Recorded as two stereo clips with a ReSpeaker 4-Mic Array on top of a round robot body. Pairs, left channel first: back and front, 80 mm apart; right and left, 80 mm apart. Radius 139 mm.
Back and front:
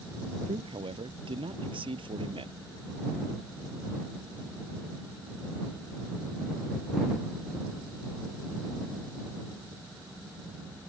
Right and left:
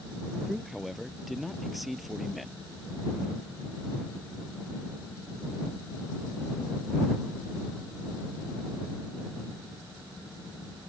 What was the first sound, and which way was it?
A man speaking, straight ahead.